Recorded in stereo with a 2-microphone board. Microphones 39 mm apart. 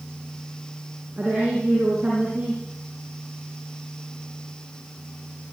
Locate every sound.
1.2 s a woman speaking: 35° right (ahead or behind), 7 m